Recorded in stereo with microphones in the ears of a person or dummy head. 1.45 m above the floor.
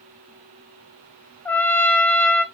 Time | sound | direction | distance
1.4 | a trumpet | 10° left (ahead or behind) | 0.7 m